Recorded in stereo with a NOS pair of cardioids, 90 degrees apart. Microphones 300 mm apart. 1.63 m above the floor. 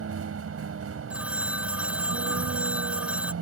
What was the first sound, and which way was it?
A vehicle, 50° right.